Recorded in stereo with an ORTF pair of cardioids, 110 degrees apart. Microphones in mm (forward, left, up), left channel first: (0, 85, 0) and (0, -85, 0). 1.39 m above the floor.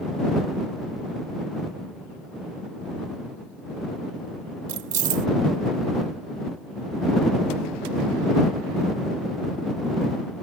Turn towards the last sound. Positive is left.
turn(degrees=-55)